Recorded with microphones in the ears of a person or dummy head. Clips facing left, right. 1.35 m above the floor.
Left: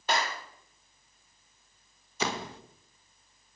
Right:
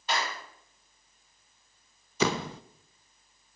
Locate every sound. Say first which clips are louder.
0.1 s a clap: left 2 dB; 45° left (ahead or behind), 2 m
2.2 s a door slam: right 6 dB; 65° right (ahead or behind), 0.6 m